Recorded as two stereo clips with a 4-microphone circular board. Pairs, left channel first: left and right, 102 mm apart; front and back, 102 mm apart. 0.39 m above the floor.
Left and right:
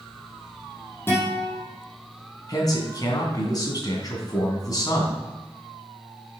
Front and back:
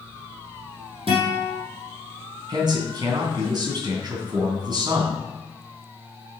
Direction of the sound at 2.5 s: 140° left.